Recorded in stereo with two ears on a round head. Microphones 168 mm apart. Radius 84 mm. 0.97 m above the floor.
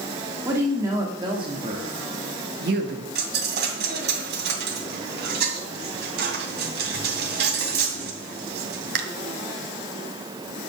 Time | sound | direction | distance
0.5 | a woman speaking | 10° right (ahead or behind) | 2.5 m
3.1 | a dropped coin | 60° right (ahead or behind) | 2.5 m